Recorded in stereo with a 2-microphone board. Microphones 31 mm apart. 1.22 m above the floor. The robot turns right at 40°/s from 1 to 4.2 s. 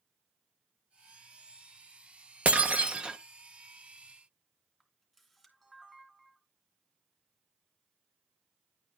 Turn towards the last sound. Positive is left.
turn(degrees=-5)  # may be behind; listen again after turning